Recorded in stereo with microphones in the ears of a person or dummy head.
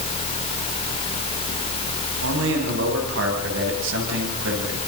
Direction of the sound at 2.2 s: 75° right (ahead or behind).